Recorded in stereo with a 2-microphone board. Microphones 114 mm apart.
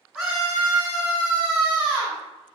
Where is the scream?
5° right (ahead or behind), 1.9 m; by 2.2 s 15° right (ahead or behind), 2 m.